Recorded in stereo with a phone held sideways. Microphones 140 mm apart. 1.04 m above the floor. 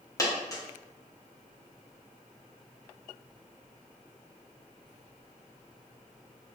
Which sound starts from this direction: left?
A dropped coin, at 0.2 s.